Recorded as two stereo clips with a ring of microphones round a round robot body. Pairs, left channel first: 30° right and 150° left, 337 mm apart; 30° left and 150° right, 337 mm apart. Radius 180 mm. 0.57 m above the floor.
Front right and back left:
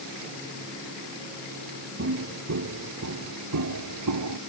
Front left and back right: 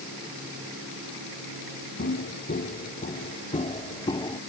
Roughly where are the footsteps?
Left.